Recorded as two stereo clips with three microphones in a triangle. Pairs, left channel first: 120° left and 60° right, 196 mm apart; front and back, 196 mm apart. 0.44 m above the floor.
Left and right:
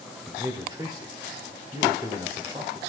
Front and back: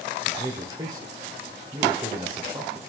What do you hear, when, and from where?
0.3 s a man speaking: 120° right, 1.2 m